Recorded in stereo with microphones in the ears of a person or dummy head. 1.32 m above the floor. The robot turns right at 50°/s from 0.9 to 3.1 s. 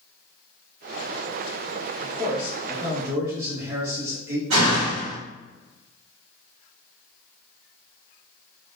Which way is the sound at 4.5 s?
85° right.